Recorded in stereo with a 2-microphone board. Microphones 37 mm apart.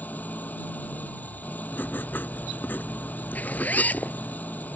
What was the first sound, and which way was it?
An engine running, 45° left (ahead or behind).